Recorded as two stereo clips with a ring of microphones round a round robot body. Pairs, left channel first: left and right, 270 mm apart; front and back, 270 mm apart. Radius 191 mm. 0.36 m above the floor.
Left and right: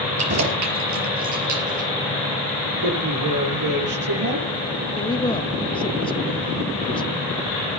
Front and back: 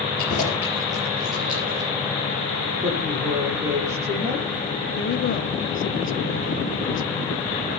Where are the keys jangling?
70° right, 5 m; by 1.9 s 100° right, 5 m.